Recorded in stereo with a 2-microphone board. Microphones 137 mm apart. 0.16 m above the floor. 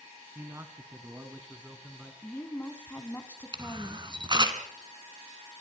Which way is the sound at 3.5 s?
35° right (ahead or behind).